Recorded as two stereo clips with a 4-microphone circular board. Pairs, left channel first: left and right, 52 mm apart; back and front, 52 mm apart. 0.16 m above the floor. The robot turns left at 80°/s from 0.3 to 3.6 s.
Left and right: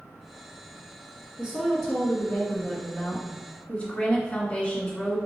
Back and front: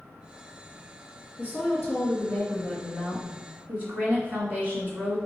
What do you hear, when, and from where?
1.4 s a woman speaking: 150° right, 1.7 m; by 5.2 s 35° left, 1.7 m